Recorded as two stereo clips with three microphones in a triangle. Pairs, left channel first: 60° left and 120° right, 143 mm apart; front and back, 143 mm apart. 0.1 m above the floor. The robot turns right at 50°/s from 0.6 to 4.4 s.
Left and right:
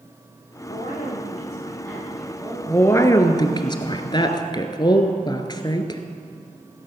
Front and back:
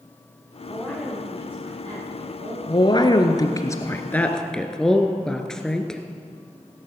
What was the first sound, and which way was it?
A woman speaking, 70° left.